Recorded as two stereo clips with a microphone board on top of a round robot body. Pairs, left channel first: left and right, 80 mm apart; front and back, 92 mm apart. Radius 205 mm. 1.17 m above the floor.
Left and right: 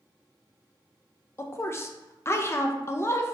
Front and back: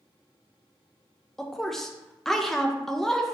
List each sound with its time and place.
1.4 s a woman speaking: 85° left, 0.6 m